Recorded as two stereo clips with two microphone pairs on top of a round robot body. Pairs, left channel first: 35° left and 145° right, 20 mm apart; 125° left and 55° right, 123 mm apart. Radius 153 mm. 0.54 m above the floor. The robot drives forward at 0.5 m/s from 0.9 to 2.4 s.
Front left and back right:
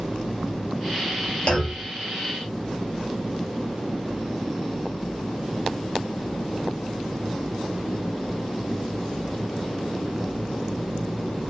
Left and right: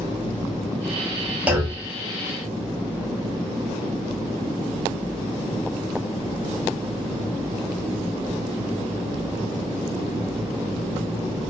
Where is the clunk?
15° left, 1.3 m; by 1.9 s 20° left, 1.1 m.